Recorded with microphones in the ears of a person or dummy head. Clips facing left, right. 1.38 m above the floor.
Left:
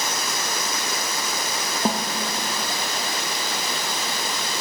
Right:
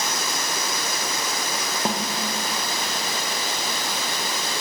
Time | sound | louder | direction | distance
1.9 | a snare drum | left 3 dB | 5° left (ahead or behind) | 0.7 m